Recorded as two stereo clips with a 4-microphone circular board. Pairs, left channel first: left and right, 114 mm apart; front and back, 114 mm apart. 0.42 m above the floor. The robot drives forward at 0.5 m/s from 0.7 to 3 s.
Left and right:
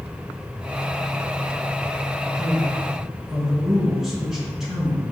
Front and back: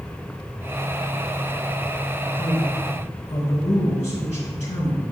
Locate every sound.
2.4 s a man speaking: straight ahead, 4.5 m; by 5.0 s 5° right, 4.5 m